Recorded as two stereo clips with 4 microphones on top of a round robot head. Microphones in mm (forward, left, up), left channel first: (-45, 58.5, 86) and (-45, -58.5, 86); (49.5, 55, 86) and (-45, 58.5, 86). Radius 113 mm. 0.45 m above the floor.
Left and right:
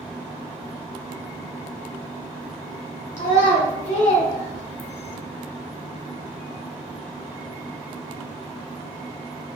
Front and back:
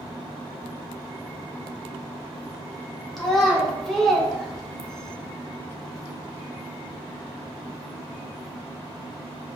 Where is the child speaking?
85° left, 1.5 m; by 5.2 s 80° left, 0.5 m.